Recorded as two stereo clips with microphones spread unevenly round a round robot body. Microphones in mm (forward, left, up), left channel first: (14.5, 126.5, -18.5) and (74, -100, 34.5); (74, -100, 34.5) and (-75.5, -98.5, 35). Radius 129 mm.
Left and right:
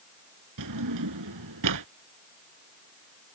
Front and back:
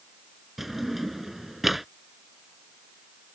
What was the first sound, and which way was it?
A drawer, 90° right.